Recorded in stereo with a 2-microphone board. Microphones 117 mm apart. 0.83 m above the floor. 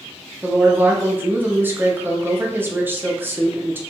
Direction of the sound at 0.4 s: 20° right (ahead or behind).